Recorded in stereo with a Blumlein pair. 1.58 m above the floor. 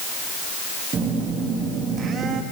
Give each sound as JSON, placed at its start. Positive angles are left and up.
{"t": 0.9, "sound": "a phone buzzing", "azimuth_deg": -25, "distance_m": 2.5}